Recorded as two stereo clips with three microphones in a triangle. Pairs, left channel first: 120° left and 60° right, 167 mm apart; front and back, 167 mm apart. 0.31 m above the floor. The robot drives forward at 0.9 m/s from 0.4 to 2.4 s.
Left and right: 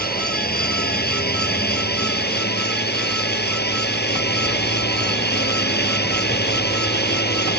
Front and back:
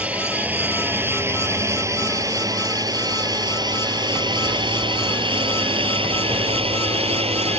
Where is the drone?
100° left; by 7.6 s 125° left.